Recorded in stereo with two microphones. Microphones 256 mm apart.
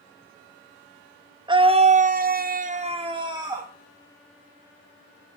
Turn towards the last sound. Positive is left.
turn(degrees=-15)  # may be behind; listen again after turning